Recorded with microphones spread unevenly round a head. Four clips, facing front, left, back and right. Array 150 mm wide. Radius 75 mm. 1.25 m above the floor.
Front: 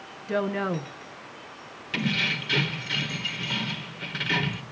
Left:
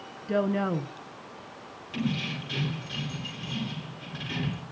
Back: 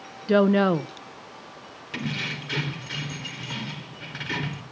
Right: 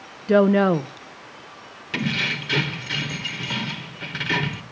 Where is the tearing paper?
I don't hear tearing paper.